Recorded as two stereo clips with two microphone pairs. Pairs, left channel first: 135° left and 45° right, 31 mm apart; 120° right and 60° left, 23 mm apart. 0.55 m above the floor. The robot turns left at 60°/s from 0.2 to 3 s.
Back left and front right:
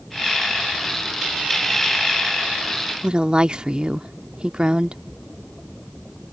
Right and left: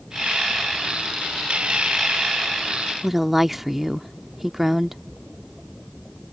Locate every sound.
3.0 s a woman speaking: 10° right